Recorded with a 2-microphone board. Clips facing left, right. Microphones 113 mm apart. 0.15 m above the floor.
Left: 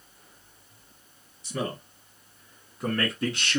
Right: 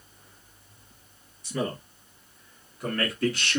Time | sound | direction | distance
1.4 | a man speaking | 25° left (ahead or behind) | 1.9 m